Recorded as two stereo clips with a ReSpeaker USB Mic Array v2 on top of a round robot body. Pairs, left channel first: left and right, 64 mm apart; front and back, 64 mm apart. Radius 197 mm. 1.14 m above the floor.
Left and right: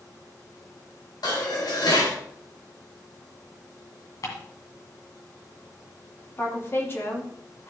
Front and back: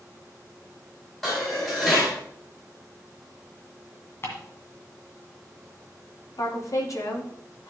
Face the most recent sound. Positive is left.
turn(degrees=35)